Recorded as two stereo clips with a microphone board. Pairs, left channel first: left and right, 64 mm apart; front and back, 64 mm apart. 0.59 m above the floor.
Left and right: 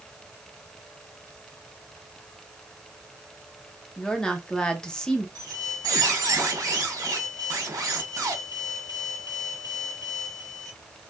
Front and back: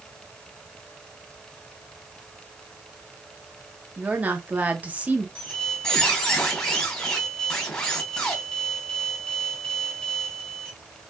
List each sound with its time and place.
4.0 s a woman speaking: 155° left, 1.0 m
5.3 s a squeak: 75° right, 2.5 m